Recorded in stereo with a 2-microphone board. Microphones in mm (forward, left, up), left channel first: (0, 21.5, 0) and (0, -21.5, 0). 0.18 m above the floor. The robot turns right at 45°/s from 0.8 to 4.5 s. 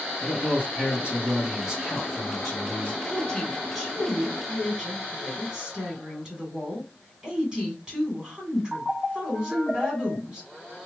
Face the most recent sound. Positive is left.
turn(degrees=-145)